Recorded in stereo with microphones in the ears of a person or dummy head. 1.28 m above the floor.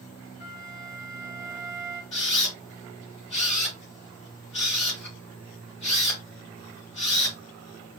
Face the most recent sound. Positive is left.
turn(degrees=35)  # may be behind; listen again after turning